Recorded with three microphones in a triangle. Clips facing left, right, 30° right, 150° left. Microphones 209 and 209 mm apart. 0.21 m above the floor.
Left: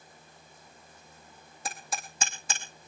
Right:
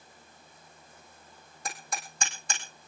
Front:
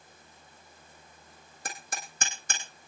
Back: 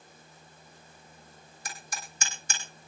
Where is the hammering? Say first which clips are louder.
Left 1 dB, front 2 dB; 5° left, 3.5 m.